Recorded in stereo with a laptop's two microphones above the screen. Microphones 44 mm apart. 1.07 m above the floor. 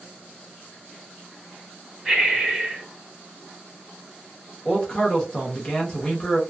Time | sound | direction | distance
2.0 | breathing | 20° right (ahead or behind) | 1.6 m
4.7 | a man speaking | 20° left (ahead or behind) | 0.9 m